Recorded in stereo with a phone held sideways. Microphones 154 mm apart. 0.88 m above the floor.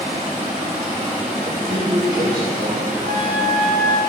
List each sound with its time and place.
0.0 s running water: 50° right (ahead or behind), 3 m
1.4 s a man speaking: 70° right (ahead or behind), 2.5 m
3.1 s a flute: 80° right, 2.5 m